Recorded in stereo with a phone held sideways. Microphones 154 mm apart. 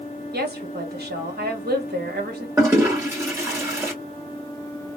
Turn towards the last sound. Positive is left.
turn(degrees=-20)  # may be behind; listen again after turning